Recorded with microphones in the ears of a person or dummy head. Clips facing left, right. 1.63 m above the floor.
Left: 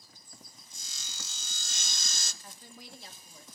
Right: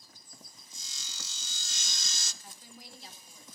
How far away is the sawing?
About 0.8 m.